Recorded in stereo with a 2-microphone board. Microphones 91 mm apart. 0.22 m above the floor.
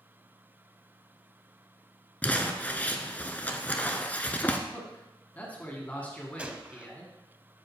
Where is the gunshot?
15° right (ahead or behind), 0.6 m.